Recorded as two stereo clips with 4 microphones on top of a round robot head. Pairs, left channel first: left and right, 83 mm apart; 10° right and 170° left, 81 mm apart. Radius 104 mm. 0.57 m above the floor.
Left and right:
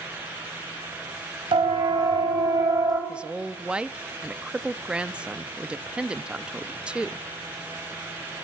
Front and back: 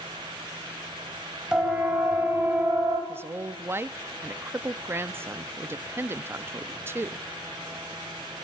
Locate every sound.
1.5 s a siren: 110° right, 3.5 m; by 3.0 s 135° right, 3.5 m
3.1 s a woman speaking: 160° right, 0.6 m